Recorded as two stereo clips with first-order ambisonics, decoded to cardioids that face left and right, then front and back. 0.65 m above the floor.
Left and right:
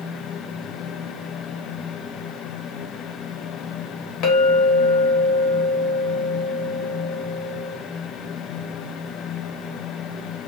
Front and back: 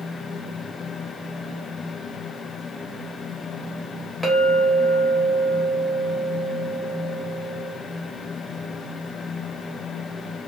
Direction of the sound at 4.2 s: 90° left.